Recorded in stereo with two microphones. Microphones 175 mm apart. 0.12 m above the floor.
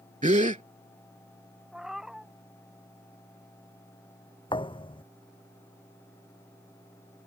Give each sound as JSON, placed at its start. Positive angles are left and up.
{"t": 0.2, "sound": "a gasp", "side_deg": -45}
{"t": 1.7, "sound": "a cat meowing", "side_deg": -5}
{"t": 4.5, "sound": "a thud", "side_deg": 30}